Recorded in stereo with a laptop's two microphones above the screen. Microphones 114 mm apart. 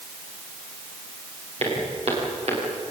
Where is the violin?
No violin in this recording.